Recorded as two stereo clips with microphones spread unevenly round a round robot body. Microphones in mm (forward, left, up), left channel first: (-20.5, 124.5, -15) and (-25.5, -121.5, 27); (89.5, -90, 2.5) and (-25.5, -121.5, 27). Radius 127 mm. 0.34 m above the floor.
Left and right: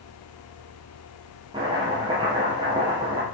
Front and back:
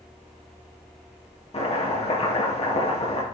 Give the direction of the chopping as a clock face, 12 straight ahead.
1 o'clock.